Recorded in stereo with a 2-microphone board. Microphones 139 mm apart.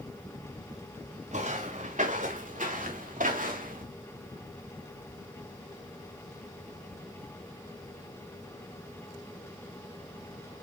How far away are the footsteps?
About 4 m.